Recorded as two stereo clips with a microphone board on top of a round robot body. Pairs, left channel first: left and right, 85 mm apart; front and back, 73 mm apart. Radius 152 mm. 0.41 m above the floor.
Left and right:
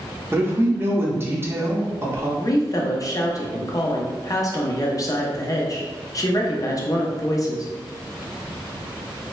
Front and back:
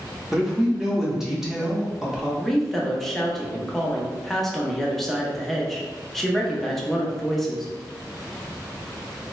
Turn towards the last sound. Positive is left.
turn(degrees=85)